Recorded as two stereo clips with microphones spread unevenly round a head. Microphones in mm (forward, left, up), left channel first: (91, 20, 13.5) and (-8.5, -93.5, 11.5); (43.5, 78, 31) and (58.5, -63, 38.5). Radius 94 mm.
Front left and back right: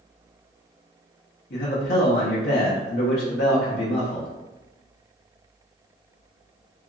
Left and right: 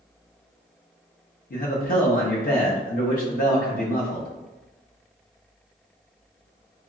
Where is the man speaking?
80° left, 0.7 m.